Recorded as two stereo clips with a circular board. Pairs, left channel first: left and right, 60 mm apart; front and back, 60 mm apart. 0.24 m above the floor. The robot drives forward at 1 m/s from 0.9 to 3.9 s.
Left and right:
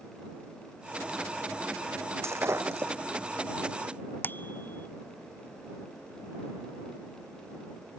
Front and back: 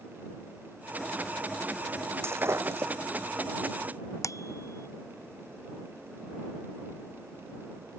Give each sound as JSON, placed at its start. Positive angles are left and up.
{"t": 2.2, "sound": "breaking glass", "azimuth_deg": -135}
{"t": 4.2, "sound": "a bicycle bell", "azimuth_deg": 30}